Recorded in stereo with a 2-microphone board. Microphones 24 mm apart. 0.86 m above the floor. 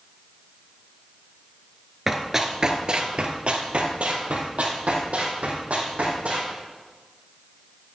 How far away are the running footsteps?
About 0.9 m.